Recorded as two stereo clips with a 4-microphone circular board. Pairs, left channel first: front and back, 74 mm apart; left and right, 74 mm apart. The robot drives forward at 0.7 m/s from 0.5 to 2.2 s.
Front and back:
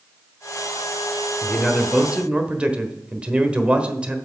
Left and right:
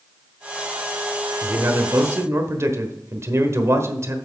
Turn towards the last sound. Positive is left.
turn(degrees=-110)